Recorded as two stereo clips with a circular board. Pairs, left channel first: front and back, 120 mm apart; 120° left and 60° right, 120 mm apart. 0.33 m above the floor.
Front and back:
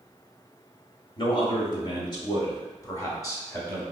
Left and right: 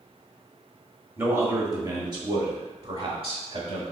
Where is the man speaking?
Straight ahead, 1.2 m; by 3.8 s 65° right, 1.9 m.